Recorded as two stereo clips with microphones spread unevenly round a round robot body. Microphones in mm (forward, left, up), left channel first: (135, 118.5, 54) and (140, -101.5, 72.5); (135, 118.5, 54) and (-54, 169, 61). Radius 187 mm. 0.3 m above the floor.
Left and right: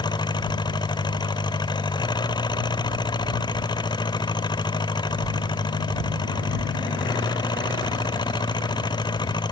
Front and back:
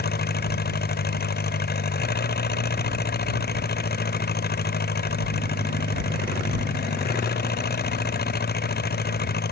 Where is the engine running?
20° left.